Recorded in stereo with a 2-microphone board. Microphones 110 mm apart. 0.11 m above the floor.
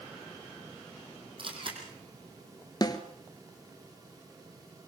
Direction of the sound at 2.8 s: 35° left (ahead or behind).